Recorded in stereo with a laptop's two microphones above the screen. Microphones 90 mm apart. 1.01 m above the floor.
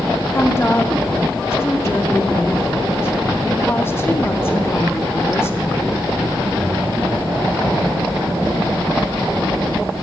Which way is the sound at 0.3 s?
25° left (ahead or behind).